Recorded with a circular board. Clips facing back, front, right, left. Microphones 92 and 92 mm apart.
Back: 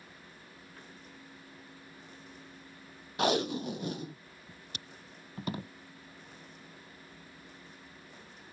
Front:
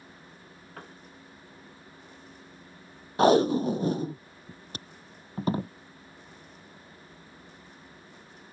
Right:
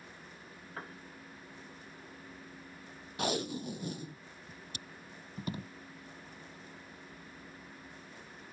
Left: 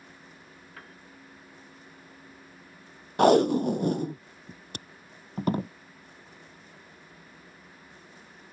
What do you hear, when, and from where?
0.8 s a piano: 30° right
3.2 s tape being pulled: 55° left